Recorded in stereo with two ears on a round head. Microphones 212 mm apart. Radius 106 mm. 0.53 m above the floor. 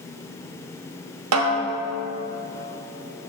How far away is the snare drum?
About 0.8 m.